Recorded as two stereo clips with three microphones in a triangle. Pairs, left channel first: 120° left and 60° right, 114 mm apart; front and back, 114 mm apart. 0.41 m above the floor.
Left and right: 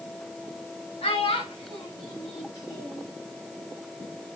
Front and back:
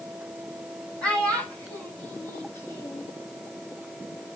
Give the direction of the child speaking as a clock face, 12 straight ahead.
9 o'clock.